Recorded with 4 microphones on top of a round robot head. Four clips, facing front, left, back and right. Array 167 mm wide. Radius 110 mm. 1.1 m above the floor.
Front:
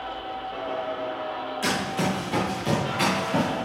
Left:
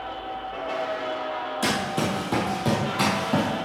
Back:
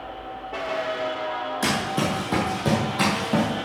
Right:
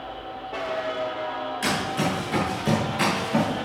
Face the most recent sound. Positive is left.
turn(degrees=135)